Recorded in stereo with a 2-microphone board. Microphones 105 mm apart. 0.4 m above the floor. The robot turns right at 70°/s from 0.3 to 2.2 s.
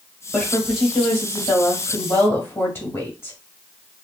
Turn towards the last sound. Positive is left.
turn(degrees=145)